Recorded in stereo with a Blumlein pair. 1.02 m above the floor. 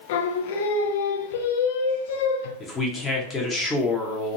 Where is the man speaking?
15° left, 0.8 m.